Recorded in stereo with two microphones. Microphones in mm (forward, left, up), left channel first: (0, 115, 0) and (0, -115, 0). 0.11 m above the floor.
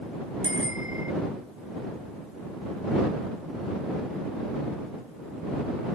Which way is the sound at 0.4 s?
65° right (ahead or behind).